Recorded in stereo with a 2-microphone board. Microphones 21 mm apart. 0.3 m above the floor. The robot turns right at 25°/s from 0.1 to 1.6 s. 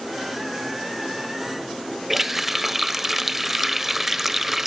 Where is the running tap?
10° right (ahead or behind), 0.6 m.